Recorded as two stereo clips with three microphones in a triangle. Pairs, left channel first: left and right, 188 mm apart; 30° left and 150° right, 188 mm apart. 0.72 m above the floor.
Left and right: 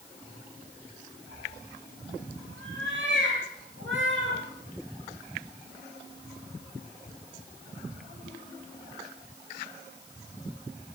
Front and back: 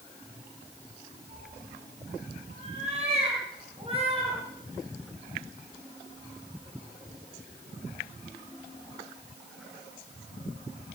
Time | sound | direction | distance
1.3 | a cat meowing | 100° right | 10 m